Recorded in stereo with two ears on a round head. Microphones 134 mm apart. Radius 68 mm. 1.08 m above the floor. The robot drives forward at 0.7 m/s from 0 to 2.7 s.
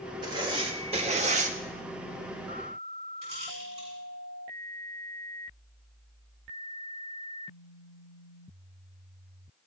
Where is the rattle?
45° right (ahead or behind), 7.5 m.